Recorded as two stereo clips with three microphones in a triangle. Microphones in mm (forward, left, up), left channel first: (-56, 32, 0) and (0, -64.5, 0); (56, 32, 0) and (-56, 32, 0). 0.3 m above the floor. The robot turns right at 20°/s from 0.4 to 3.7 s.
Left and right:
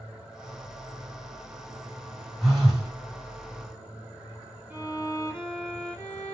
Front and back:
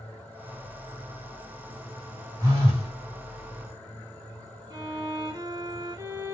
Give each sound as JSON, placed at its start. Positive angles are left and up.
{"t": 2.4, "sound": "a phone buzzing", "azimuth_deg": -150, "distance_m": 1.7}
{"t": 4.7, "sound": "a violin", "azimuth_deg": -130, "distance_m": 1.1}